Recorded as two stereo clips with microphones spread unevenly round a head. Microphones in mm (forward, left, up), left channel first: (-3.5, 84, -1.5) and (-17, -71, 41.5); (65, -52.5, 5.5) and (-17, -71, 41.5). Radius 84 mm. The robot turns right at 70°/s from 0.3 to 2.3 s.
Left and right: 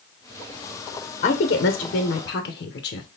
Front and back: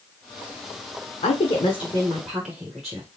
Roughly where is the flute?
I don't hear a flute.